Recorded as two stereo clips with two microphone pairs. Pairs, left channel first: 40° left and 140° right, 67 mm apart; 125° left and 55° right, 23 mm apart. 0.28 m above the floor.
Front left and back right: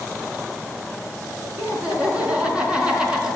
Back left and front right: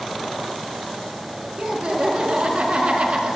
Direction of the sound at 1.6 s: 75° right.